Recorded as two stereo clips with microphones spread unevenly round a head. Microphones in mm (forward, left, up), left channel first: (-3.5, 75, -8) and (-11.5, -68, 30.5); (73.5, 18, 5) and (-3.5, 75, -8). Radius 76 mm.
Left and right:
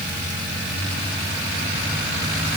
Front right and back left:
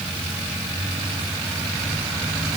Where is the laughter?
I don't hear laughter.